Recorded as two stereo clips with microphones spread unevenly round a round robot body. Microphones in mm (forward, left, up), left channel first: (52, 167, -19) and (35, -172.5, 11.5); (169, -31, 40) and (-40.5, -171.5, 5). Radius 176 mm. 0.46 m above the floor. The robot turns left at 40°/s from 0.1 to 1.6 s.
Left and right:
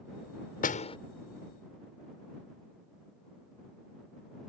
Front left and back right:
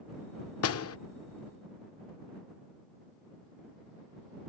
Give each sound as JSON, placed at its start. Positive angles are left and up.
{"t": 0.6, "sound": "a door slam", "azimuth_deg": 35}